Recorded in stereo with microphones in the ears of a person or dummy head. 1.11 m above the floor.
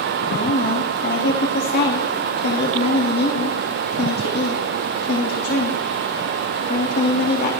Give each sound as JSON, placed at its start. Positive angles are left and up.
{"t": 0.3, "sound": "a woman speaking", "side_deg": 50, "distance_m": 2.0}